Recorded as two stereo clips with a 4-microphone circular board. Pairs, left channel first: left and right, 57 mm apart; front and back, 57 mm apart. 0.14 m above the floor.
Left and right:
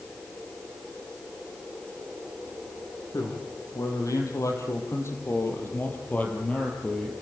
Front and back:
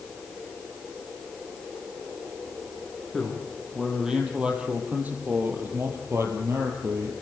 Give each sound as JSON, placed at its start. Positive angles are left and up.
{"t": 3.1, "sound": "a man speaking", "azimuth_deg": 90, "distance_m": 6.0}